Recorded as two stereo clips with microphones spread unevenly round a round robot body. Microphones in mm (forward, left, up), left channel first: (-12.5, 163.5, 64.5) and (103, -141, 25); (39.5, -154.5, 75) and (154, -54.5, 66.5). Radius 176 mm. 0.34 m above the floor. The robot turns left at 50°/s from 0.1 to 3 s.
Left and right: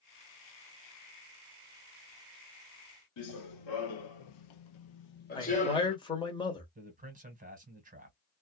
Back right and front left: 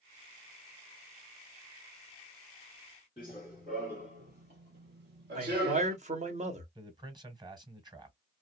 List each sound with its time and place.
3.2 s running footsteps: 150° left, 0.9 m; by 6.0 s 35° left, 1.1 m
5.3 s a man speaking: 30° left, 1.3 m
6.8 s a man speaking: 15° right, 1.6 m